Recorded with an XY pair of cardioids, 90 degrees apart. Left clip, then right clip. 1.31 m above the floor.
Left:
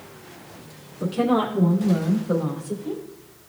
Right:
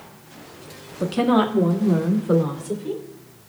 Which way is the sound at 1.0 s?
65° right.